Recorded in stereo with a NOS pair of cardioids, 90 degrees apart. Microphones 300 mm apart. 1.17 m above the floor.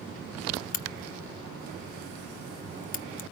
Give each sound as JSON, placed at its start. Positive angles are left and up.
{"t": 0.7, "sound": "a crack", "azimuth_deg": 30, "distance_m": 0.6}